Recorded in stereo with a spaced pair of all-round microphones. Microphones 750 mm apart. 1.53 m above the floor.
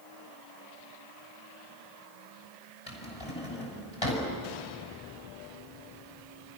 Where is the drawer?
45° left (ahead or behind), 5.5 m.